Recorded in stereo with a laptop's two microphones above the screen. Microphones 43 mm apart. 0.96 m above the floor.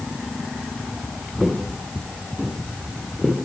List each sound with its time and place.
1.4 s footsteps: 5° left (ahead or behind), 6.5 m